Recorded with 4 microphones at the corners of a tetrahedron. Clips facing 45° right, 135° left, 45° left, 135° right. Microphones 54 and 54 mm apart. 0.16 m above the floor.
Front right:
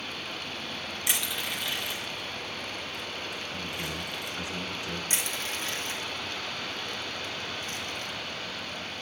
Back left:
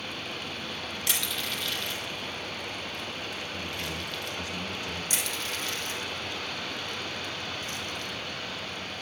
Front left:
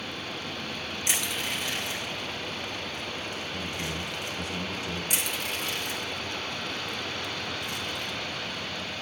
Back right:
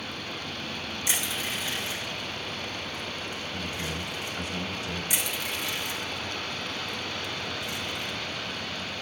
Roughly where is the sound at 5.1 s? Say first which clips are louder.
Even, even; ahead.